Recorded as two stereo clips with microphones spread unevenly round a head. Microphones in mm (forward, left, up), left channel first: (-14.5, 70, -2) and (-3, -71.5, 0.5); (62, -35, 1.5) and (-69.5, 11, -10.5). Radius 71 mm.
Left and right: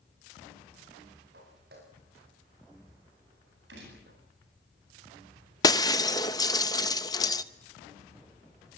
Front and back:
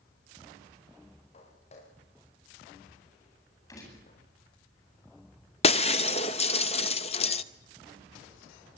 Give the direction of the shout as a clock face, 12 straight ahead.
No shout in this recording.